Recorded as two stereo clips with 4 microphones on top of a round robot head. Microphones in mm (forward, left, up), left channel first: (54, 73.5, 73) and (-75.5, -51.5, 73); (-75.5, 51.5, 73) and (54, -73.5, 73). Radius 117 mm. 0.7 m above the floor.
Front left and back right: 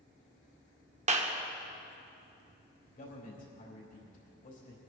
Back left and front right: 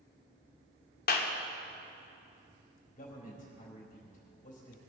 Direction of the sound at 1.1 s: 170° left.